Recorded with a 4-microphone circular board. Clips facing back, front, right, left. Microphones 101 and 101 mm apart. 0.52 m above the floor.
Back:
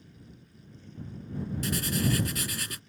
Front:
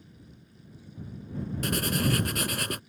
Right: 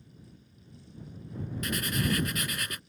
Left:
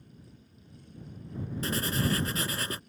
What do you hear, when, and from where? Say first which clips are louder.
1.6 s writing: front 2 dB, left 1 dB; 30° left